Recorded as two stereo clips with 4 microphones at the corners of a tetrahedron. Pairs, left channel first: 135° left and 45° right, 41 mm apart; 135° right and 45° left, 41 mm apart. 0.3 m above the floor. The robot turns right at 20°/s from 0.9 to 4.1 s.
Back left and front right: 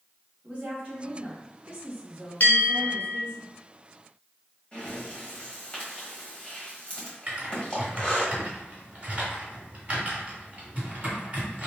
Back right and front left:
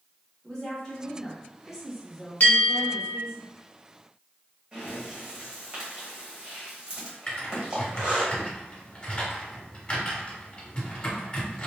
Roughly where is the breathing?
Left.